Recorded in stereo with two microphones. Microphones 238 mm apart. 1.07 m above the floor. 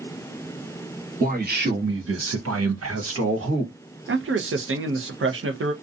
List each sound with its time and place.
1.2 s a man speaking: 35° right (ahead or behind), 1.2 m; by 3.7 s 50° right (ahead or behind), 1.2 m
4.1 s a man speaking: 60° right (ahead or behind), 0.6 m